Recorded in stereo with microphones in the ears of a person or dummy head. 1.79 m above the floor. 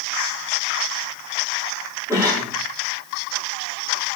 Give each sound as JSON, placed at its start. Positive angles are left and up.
{"t": 2.1, "sound": "a cough", "side_deg": -15, "distance_m": 5.5}